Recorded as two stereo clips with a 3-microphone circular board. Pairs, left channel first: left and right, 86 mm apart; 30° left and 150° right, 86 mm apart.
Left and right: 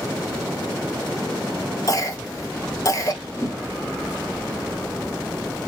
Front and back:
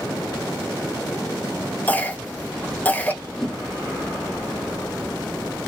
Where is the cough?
90° left, 1.0 m.